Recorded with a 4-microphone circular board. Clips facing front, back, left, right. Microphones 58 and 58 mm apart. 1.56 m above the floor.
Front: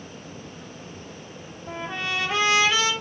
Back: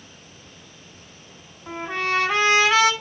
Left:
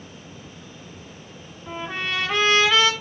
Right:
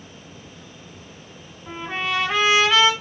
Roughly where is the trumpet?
Behind.